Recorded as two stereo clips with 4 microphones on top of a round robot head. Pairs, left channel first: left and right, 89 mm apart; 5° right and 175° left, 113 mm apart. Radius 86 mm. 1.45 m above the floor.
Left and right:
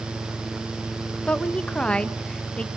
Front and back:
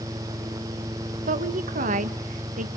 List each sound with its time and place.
1.3 s a woman speaking: 170° left, 1.2 m